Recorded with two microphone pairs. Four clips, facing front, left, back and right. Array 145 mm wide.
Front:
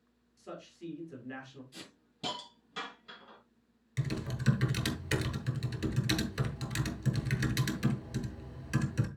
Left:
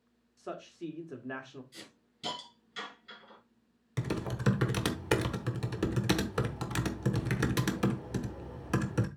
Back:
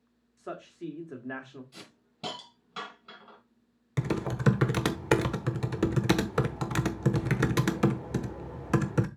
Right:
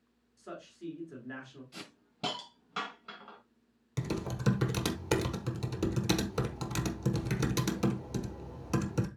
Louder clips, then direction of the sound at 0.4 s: Left 4 dB, back 6 dB; 140° left.